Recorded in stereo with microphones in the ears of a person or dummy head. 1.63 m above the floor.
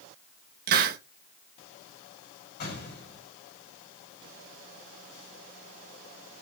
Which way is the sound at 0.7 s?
50° right (ahead or behind).